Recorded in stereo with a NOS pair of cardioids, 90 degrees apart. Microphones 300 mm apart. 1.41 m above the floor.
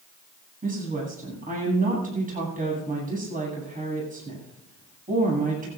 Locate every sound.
0.6 s a woman speaking: 25° right, 8.5 m